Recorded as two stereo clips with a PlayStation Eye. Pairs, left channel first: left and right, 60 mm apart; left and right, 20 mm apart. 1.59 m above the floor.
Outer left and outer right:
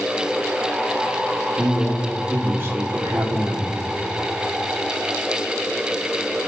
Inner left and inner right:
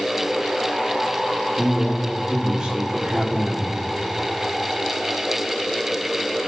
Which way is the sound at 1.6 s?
25° right (ahead or behind).